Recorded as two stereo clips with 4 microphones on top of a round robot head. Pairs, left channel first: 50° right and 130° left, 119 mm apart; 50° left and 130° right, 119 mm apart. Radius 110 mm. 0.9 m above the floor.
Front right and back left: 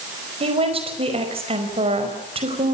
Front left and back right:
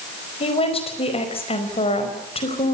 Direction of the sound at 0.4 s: 90° left.